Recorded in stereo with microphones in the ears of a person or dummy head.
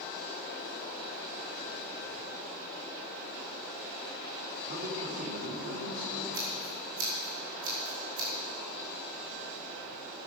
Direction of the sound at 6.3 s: 75° right (ahead or behind).